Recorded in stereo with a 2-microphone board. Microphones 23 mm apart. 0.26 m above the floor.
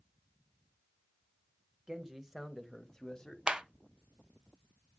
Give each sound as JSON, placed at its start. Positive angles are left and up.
{"t": 1.9, "sound": "a man speaking", "side_deg": -25, "distance_m": 1.2}
{"t": 3.5, "sound": "a clap", "side_deg": -40, "distance_m": 0.9}